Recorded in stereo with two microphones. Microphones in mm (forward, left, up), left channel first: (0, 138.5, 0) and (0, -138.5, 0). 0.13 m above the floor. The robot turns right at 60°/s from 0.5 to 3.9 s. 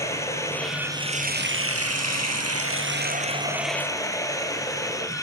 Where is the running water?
170° left, 3 m; by 5.2 s 15° left, 3 m.